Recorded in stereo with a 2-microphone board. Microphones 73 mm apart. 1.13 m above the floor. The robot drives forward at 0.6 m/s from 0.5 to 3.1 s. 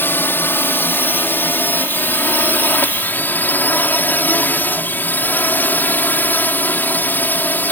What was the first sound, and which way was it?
A drone, 30° left (ahead or behind).